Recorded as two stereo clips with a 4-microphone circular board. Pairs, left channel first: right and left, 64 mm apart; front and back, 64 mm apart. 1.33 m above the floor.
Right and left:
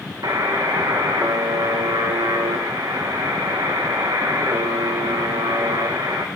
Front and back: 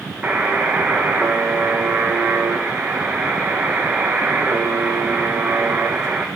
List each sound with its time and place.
0.2 s a buzzer: 110° left, 0.8 m